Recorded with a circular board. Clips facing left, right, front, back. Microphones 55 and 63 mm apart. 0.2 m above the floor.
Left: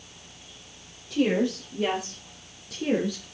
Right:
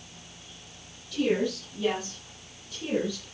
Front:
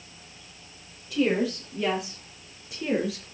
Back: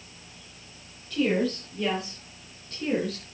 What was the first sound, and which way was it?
A woman speaking, 80° left.